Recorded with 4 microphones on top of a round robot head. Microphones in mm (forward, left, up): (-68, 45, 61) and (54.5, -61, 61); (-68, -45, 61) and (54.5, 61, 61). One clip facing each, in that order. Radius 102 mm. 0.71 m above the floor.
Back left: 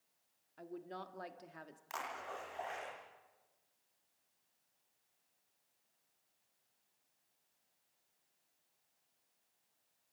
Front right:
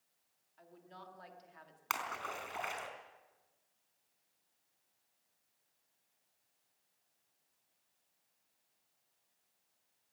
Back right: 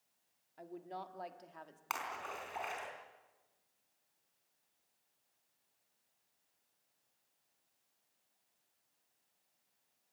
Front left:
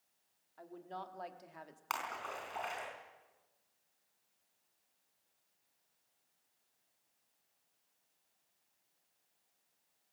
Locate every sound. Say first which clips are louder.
0.6 s a woman speaking: back left 9 dB, back right 1 dB; 150° left, 2 m; by 1.8 s 115° left, 1.8 m
1.9 s a splash: front right 3 dB, front left 1 dB; 55° right, 4 m